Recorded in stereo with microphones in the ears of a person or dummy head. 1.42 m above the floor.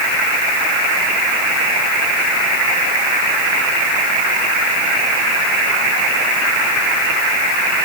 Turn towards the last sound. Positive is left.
No sound to turn to.